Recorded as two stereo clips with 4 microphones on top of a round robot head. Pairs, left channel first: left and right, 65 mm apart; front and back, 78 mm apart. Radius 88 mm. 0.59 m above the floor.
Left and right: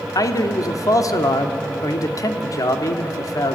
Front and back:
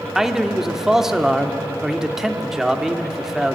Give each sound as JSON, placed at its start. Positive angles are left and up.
{"t": 0.1, "sound": "a man speaking", "azimuth_deg": 95, "distance_m": 1.7}